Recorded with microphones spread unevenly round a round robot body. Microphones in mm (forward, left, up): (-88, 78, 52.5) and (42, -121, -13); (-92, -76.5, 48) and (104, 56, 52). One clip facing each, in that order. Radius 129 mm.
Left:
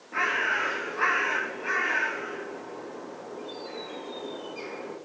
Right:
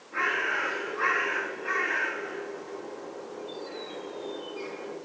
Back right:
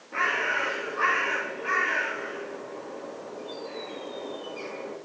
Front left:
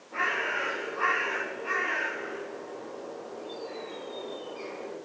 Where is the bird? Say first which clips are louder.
Even, back right 2 dB; 150° left, 1.0 m.